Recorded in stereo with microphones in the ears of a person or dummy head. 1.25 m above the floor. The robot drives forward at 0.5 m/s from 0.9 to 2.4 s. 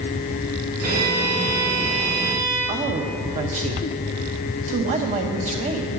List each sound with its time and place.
0.8 s a violin: 85° right, 3.5 m; by 2.6 s 70° right (ahead or behind), 3.5 m
2.7 s a woman speaking: 40° right (ahead or behind), 0.9 m